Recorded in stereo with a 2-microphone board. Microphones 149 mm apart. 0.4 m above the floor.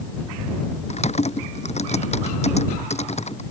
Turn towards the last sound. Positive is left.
turn(degrees=50)  # may be behind; listen again after turning